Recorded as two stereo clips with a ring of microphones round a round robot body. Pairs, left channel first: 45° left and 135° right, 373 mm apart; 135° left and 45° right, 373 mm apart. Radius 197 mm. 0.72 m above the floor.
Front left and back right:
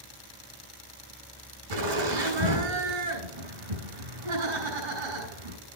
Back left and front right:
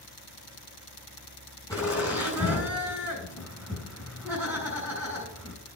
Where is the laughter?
145° right, 5.5 m.